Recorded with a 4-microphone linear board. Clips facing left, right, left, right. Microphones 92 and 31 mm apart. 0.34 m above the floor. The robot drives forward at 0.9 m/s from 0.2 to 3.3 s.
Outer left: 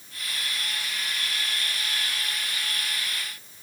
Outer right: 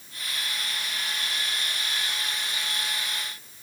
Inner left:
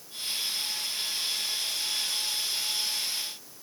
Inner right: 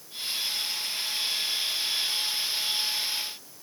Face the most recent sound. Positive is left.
No sound to turn to.